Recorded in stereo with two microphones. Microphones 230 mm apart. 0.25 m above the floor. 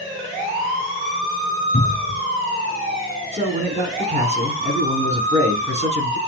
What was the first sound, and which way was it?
A cupboard door, 45° left (ahead or behind).